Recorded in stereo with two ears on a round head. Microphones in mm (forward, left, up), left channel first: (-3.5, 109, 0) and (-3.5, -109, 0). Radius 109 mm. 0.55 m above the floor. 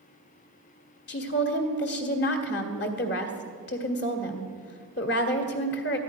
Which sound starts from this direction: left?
A woman speaking, at 1.1 s.